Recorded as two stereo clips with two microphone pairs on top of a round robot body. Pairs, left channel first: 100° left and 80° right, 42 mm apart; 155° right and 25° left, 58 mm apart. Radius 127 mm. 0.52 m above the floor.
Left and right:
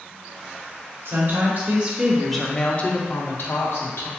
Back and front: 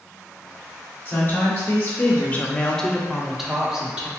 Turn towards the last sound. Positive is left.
turn(degrees=105)